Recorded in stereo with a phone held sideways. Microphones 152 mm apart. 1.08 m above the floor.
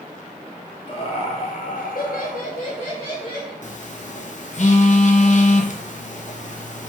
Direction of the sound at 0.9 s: 35° left (ahead or behind).